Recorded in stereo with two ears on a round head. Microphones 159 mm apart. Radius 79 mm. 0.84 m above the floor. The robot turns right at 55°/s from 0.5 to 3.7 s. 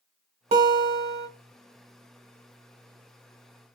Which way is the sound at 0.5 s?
135° right.